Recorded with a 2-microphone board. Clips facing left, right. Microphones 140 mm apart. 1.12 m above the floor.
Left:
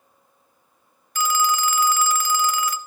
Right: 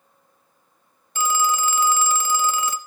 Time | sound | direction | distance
1.1 | a phone ringing | 25° right (ahead or behind) | 0.5 m